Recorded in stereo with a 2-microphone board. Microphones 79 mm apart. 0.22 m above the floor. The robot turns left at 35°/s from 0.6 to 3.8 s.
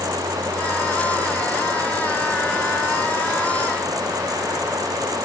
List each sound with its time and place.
Only background noise.